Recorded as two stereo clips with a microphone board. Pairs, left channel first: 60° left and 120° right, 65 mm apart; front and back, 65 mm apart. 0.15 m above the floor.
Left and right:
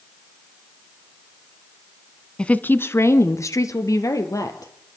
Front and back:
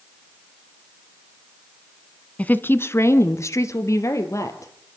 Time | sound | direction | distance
2.4 | a woman speaking | 10° left | 1.0 m